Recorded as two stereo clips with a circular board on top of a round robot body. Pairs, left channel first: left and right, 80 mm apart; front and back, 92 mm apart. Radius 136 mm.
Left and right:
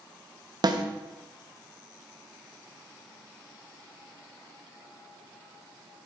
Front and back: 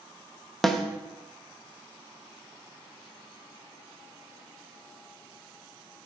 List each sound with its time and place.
0.6 s a snare drum: 85° right, 1.3 m